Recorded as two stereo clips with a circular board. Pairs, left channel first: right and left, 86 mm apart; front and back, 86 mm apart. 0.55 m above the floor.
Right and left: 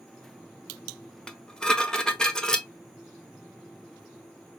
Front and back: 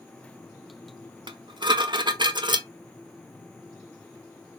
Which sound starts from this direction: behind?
Dishes clattering, at 1.3 s.